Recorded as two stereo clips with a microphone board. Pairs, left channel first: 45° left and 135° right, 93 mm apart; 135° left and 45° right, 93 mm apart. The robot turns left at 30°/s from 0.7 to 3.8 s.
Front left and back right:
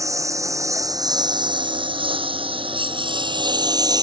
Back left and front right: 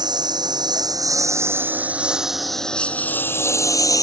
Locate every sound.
0.0 s a lawn mower: 85° right; by 4.0 s 175° right